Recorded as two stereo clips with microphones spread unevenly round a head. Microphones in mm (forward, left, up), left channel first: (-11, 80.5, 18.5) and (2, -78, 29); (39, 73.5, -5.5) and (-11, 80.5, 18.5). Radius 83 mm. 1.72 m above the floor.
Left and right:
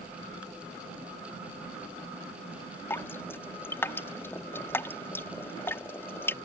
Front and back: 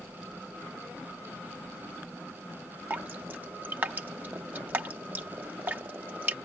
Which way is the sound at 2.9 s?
175° left.